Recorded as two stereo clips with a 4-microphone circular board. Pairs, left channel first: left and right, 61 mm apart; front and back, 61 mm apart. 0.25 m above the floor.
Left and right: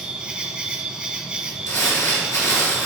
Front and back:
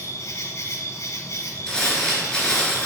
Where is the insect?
20° right, 1.1 m.